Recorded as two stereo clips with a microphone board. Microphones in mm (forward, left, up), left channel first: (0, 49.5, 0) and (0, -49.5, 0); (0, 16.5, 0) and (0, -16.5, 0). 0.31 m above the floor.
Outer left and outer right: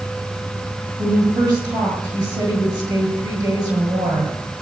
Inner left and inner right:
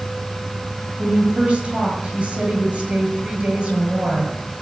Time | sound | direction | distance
1.0 | a woman speaking | 45° right (ahead or behind) | 6.5 m